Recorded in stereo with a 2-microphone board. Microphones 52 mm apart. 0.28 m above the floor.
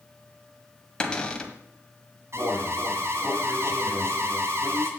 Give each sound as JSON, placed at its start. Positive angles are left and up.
{"t": 1.0, "sound": "a cupboard door", "side_deg": 15, "distance_m": 1.4}
{"t": 2.3, "sound": "an alarm", "side_deg": -60, "distance_m": 2.0}